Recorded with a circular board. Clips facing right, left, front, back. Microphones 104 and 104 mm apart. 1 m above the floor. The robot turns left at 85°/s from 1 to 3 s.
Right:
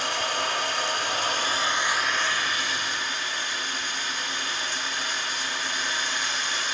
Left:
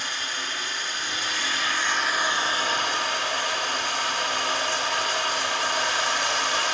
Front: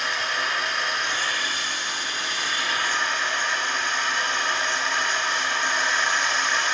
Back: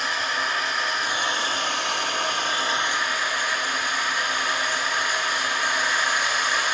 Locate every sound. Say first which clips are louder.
0.0 s running water: right 6 dB, back 1 dB; 90° right, 1.2 m; by 6.7 s 100° left, 1.2 m